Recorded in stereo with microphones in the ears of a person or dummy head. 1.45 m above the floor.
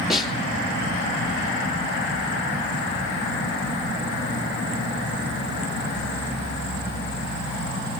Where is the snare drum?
Centre (ahead or behind), 2.5 m.